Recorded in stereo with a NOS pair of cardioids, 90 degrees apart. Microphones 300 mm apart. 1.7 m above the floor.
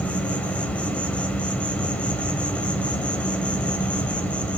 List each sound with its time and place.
0.0 s an insect: 5° left, 1.1 m